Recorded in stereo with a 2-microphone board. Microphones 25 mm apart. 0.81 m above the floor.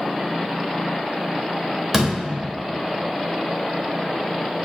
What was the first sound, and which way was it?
A door slam, centre (ahead or behind).